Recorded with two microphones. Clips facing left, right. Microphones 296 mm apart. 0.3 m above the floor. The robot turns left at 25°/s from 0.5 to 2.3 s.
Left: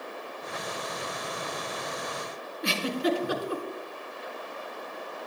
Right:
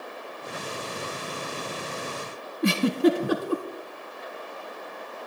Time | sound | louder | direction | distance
2.6 | a giggle | right 8 dB | 60° right (ahead or behind) | 1.8 m